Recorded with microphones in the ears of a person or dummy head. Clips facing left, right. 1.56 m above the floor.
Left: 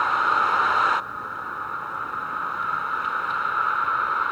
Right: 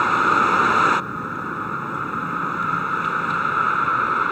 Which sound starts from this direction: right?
A vehicle, at 0.0 s.